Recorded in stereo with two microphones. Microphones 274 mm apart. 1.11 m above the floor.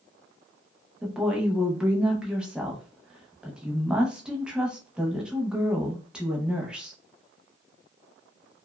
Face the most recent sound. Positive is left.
turn(degrees=-5)  # may be behind; listen again after turning